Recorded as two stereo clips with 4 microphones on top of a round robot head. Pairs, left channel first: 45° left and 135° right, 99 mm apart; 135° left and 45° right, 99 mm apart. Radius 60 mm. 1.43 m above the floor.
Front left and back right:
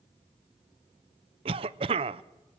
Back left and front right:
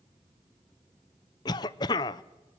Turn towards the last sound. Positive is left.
turn(degrees=-170)